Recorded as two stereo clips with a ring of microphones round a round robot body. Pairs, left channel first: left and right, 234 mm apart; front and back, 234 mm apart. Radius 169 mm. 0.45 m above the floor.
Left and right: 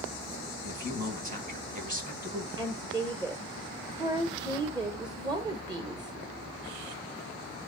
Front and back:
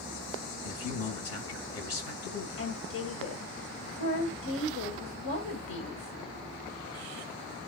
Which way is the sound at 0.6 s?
35° right.